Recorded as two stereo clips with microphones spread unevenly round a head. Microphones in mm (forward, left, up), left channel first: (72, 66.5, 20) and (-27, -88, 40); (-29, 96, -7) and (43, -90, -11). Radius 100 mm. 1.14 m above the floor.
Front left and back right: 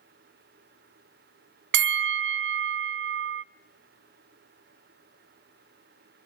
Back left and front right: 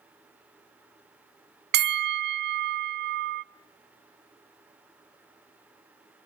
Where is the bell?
105° right, 0.7 m.